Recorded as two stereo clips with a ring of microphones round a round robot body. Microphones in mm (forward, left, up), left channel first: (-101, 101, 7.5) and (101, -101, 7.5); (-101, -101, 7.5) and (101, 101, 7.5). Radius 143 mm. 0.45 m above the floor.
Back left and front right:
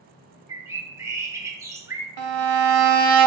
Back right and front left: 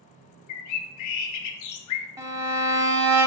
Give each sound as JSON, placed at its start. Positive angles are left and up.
{"t": 0.5, "sound": "a bird", "azimuth_deg": -125, "distance_m": 0.6}
{"t": 2.2, "sound": "a violin", "azimuth_deg": -35, "distance_m": 0.7}